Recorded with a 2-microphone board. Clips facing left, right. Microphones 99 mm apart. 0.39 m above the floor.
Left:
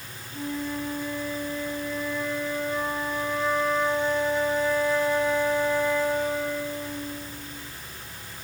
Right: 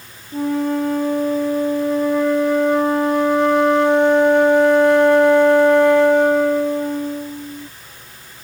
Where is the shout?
I don't hear a shout.